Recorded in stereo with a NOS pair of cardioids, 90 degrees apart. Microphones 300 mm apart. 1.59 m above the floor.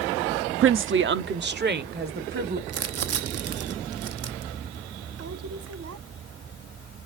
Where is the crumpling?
55° right, 0.9 m.